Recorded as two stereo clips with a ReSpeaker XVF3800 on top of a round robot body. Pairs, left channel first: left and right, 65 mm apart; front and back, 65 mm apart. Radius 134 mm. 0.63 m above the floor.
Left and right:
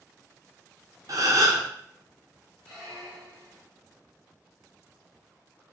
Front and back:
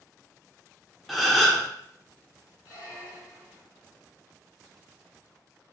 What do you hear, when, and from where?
1.1 s a gasp: 95° right, 1.0 m
2.6 s a squeak: 5° right, 0.7 m